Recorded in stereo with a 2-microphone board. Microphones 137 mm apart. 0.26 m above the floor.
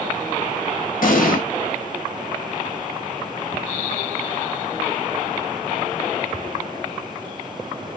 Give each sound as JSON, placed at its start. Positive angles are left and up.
{"t": 1.0, "sound": "an explosion", "side_deg": 70, "distance_m": 0.9}